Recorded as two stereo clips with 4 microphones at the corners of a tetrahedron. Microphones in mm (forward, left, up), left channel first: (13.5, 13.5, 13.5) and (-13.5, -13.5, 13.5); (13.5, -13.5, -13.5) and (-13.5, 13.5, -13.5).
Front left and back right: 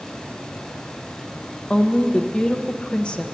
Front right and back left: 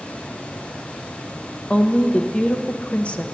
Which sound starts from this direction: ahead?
A woman speaking, at 1.7 s.